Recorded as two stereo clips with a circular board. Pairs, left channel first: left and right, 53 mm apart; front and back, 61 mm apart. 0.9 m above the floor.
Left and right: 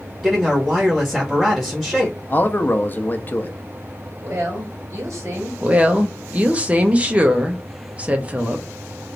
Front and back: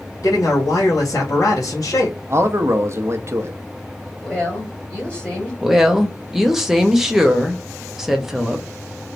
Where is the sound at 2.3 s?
140° left, 0.6 m.